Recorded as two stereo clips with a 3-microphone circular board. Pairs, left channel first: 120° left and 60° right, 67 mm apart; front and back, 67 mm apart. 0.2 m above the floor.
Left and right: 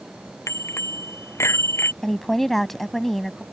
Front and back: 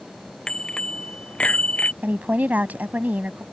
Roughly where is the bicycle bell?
Left.